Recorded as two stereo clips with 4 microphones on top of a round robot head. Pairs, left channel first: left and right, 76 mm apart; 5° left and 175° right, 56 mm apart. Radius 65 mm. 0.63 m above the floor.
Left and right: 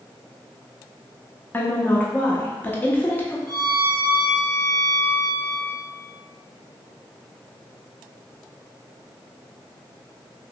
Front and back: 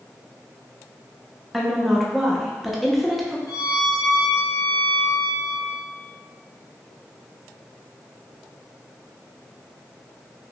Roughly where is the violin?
Ahead.